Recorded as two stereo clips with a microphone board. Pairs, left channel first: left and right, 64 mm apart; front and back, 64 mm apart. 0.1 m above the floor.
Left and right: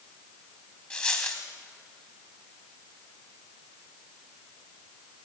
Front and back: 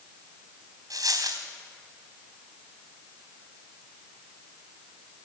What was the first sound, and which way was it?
A dropped coin, 160° left.